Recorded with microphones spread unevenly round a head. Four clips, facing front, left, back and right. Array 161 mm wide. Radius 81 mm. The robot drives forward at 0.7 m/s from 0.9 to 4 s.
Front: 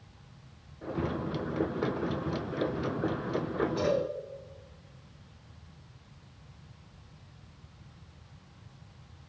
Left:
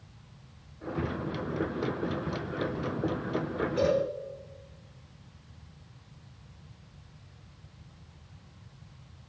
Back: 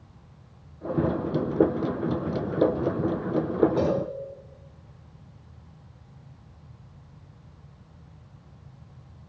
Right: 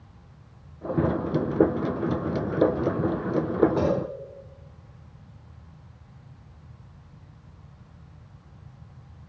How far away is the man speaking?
I don't hear a man speaking.